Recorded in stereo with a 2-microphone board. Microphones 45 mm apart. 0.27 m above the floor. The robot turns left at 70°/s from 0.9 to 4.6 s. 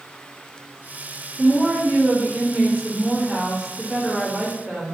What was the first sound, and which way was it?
A woman speaking, 140° left.